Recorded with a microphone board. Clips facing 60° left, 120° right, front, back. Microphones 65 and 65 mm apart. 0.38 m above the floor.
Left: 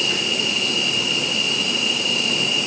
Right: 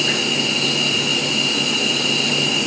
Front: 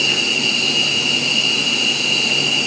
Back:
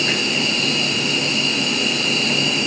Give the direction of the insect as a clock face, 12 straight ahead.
5 o'clock.